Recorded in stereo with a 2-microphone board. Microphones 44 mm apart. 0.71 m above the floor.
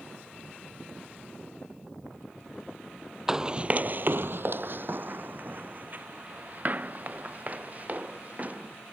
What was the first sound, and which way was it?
Running footsteps, 15° right (ahead or behind).